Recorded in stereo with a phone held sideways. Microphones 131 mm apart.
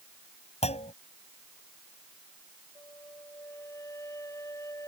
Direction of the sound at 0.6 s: 55° left (ahead or behind).